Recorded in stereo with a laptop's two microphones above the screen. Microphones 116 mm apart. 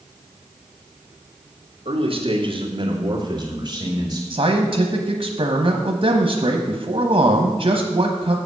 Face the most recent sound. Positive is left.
turn(degrees=-55)  # may be behind; listen again after turning